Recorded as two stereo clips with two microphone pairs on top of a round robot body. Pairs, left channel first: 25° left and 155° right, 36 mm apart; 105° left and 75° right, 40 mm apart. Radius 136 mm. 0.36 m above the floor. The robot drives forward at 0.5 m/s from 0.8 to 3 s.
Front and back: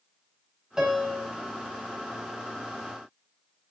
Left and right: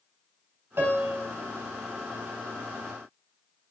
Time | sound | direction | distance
0.8 | a piano | 80° right | 3.5 m